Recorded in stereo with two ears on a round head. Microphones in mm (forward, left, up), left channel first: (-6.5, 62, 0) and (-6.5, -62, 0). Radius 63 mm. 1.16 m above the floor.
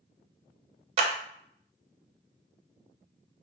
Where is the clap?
45° right (ahead or behind), 0.6 m.